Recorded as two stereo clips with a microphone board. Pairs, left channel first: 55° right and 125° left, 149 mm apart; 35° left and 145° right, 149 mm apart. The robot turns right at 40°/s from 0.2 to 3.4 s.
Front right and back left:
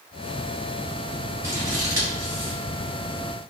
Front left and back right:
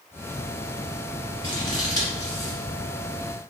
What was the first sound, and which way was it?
Scissors, 55° left.